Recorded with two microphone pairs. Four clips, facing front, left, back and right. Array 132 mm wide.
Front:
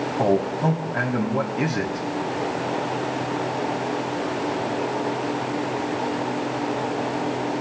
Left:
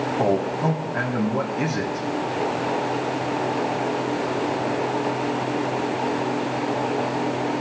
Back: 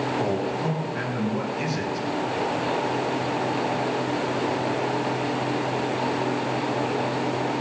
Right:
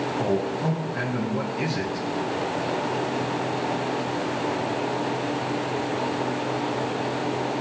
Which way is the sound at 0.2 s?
40° left.